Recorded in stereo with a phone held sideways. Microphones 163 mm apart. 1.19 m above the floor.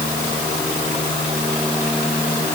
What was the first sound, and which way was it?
Only background noise.